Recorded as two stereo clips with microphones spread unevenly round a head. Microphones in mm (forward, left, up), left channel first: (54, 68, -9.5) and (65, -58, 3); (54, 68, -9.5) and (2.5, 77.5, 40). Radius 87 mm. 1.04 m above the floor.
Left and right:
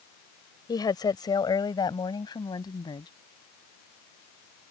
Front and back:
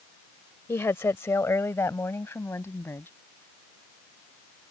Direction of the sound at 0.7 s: 35° left.